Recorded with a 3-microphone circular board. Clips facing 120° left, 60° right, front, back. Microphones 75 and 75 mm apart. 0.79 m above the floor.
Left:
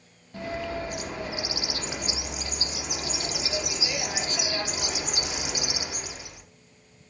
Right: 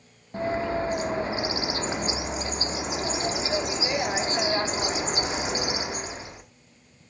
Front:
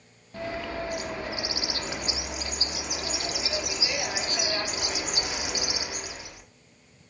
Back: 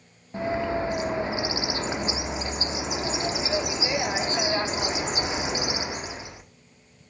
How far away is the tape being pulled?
No tape being pulled in this recording.